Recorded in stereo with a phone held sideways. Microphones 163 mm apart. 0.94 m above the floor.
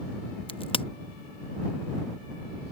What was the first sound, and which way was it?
A crack, 30° left (ahead or behind).